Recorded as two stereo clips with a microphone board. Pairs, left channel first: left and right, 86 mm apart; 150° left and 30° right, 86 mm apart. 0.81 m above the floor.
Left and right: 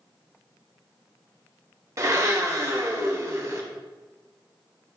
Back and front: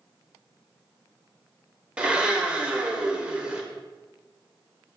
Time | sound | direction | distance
2.0 | a blender | 100° right | 0.6 m